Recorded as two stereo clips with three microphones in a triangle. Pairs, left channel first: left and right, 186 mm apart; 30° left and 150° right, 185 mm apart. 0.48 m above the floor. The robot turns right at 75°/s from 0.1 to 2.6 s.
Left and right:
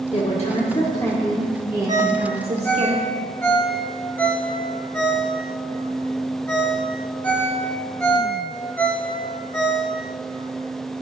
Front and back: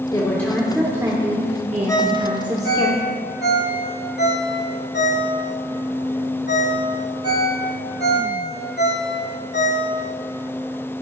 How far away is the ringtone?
About 1.3 m.